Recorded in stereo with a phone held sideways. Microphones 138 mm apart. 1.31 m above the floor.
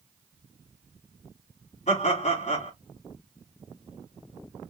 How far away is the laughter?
About 3.5 m.